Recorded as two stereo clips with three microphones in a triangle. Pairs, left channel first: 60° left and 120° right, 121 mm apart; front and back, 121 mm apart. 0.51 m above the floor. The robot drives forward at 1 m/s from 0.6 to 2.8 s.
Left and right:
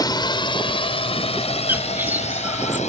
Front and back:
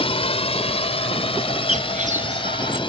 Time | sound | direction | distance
0.0 | a drone | 15° left | ?
1.7 | a bird | 165° left | ?